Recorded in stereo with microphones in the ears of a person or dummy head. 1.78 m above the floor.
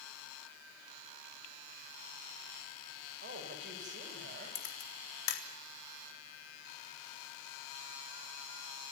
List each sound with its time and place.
3.2 s a man speaking: 50° right (ahead or behind), 8 m
4.5 s a camera shutter: 75° left (ahead or behind), 3.5 m